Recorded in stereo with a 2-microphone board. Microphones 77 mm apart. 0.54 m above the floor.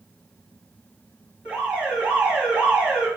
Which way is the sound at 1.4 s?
25° right (ahead or behind).